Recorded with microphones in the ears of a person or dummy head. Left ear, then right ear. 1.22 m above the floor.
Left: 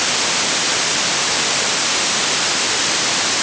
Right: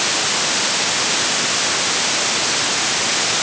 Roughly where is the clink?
I don't hear a clink.